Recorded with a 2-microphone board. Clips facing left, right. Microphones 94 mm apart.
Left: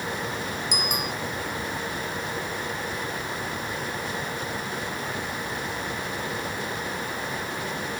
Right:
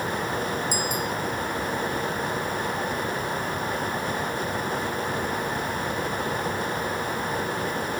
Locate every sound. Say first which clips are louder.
0.7 s a bicycle bell: right 2 dB; 70° left (ahead or behind)